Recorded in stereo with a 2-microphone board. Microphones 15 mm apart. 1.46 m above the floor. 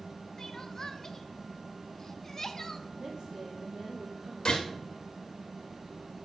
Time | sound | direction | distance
0.4 | crying | 30° left (ahead or behind) | 0.8 m
3.0 | a woman speaking | 70° right (ahead or behind) | 1.6 m
4.5 | a gunshot | 50° left (ahead or behind) | 2.5 m